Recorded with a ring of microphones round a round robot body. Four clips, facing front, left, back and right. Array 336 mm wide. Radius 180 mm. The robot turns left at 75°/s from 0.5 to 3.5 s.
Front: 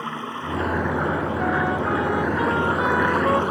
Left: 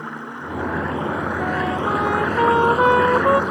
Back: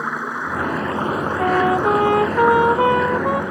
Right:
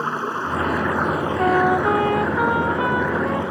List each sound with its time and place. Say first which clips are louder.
0.0 s running water: right 7 dB, back 5 dB; 100° right; by 3.5 s 35° left
1.4 s a trumpet: right 8 dB, back 8 dB; 120° right; by 3.4 s 90° left